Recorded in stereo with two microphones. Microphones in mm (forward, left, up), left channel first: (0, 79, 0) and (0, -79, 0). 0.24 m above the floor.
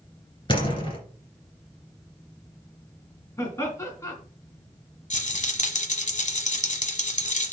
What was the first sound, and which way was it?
A door slam, 35° left (ahead or behind).